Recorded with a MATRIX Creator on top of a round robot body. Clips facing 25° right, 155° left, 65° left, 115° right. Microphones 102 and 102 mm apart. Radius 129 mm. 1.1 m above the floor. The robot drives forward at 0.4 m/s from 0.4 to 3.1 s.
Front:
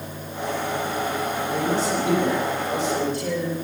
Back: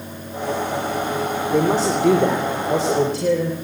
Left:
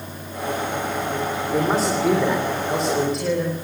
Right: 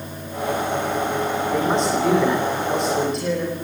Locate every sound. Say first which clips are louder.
1.5 s a man speaking: back 6 dB, left 1 dB; 155° left, 3.5 m; by 3.5 s 160° left, 4 m